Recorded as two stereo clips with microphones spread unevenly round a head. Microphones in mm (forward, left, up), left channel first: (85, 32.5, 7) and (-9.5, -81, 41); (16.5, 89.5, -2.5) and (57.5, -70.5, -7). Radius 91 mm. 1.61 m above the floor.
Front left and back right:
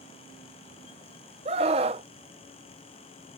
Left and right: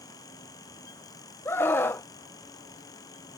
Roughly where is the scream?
Behind.